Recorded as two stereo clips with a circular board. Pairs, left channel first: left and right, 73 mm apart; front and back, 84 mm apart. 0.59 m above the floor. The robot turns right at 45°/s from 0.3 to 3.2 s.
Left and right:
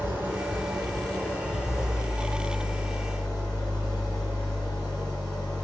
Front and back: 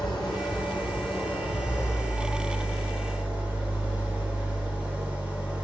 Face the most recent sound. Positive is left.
turn(degrees=105)